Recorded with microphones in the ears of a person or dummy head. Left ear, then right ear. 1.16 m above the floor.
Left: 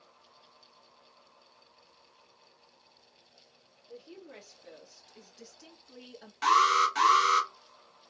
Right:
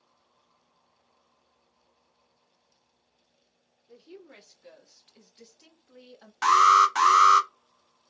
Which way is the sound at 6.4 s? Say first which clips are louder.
Right 6 dB; 45° right (ahead or behind).